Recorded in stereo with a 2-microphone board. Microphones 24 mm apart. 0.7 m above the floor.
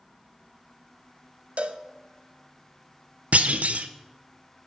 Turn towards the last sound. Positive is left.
turn(degrees=-70)  # may be behind; listen again after turning